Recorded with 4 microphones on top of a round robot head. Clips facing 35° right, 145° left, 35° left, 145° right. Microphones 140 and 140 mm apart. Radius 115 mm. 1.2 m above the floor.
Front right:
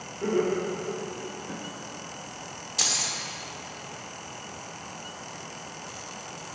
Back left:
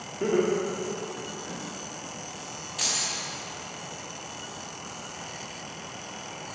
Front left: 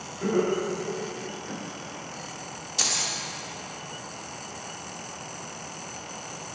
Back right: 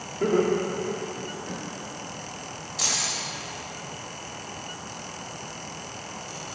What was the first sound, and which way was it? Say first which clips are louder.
Laughter: back left 1 dB, back right 2 dB; 160° left.